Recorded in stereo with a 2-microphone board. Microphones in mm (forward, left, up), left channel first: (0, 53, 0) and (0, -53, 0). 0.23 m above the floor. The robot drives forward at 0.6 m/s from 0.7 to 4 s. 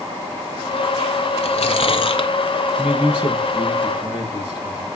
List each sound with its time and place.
1.4 s chewing: 70° left (ahead or behind), 0.9 m; by 2.3 s 50° left (ahead or behind), 1.1 m
2.8 s a man speaking: 15° right (ahead or behind), 5 m; by 4.9 s 10° right (ahead or behind), 5.5 m